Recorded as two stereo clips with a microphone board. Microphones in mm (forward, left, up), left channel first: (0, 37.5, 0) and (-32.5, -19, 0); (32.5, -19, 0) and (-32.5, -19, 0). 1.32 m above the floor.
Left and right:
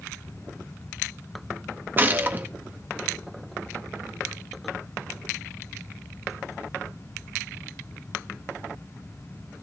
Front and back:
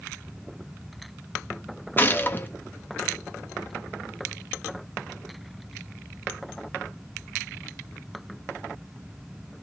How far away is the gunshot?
About 1.7 m.